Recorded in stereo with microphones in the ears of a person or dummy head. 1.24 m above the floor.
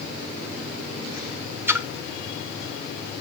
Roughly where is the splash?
Centre.